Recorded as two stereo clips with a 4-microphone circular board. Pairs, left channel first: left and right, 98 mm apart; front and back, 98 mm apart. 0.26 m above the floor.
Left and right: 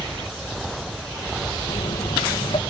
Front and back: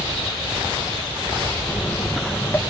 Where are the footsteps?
65° left, 2.5 m.